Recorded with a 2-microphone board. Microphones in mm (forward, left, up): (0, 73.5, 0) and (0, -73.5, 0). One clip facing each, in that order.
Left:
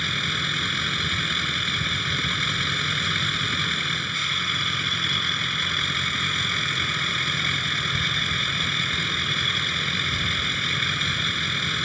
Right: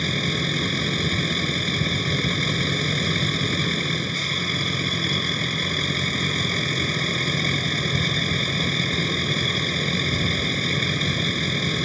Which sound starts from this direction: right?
A vehicle, at 0.0 s.